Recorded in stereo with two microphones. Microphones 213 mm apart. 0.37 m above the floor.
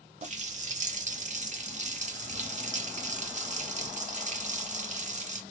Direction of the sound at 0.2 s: 35° right (ahead or behind).